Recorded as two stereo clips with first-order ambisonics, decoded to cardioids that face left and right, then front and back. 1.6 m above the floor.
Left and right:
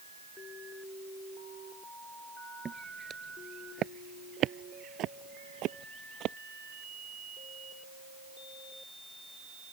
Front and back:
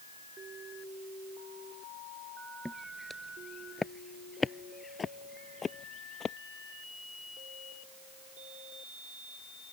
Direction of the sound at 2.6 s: 90° right.